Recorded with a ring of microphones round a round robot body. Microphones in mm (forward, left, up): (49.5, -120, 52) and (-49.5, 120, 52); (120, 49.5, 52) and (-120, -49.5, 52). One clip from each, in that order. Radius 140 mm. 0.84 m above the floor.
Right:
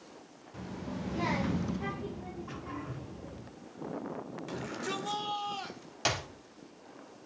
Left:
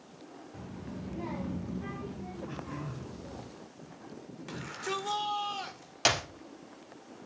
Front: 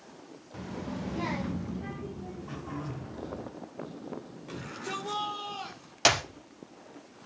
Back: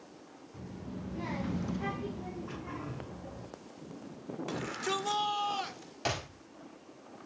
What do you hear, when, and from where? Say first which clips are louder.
0.5 s a child speaking: right 5 dB, front 8 dB; 10° right, 1.3 m; by 3.5 s 155° right, 2.5 m
2.5 s throat clearing: even, front 2 dB; 95° right, 7 m
4.5 s a shout: left 2 dB, back 3 dB; 160° right, 2.5 m
6.0 s a clap: left 5 dB, front 11 dB; 40° left, 1.5 m